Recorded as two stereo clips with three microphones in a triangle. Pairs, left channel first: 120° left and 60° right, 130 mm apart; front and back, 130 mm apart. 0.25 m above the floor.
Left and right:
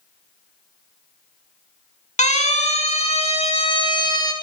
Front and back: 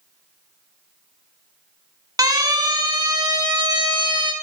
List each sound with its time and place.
2.2 s a siren: 125° left, 3 m; by 4.3 s 160° left, 1.9 m